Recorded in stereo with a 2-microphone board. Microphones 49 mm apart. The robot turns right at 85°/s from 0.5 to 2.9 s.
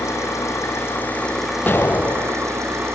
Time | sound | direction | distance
0.0 | an engine running | 95° left | 5.5 m
1.7 | an explosion | 40° left | 0.8 m